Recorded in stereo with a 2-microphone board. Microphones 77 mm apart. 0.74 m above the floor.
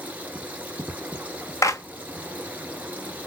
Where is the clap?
45° left (ahead or behind), 0.5 m.